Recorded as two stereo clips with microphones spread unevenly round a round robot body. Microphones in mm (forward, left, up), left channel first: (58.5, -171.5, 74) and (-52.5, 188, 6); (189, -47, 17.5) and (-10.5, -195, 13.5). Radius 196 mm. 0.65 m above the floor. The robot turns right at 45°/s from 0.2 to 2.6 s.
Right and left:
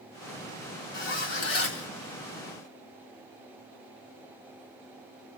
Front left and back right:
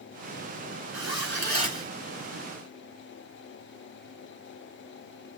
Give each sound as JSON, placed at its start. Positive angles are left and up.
{"t": 0.9, "sound": "a zipper", "azimuth_deg": -115, "distance_m": 4.5}